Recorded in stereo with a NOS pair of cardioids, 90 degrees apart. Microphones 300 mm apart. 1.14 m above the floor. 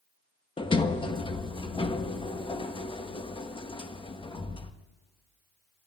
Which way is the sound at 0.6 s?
15° left.